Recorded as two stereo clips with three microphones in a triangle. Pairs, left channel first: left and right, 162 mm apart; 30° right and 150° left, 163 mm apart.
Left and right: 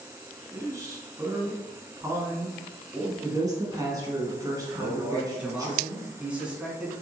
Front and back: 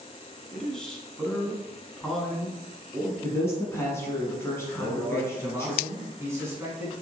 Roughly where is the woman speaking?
Right.